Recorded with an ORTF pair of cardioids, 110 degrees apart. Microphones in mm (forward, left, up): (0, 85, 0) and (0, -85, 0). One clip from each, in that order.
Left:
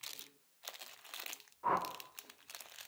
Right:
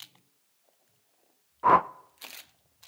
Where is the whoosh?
55° right, 0.6 m.